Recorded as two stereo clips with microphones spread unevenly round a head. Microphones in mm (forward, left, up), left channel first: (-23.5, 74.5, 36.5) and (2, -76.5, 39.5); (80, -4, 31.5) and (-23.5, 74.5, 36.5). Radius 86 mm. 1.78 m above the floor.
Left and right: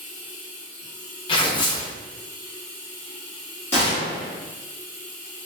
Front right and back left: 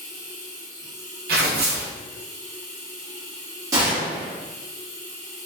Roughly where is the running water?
Ahead.